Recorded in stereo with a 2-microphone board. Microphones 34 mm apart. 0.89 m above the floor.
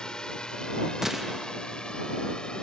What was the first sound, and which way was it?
A drone, 25° left (ahead or behind).